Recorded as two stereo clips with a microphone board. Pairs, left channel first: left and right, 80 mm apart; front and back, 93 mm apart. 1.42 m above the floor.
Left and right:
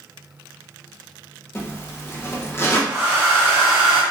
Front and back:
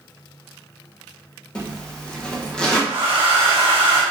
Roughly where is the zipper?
Left.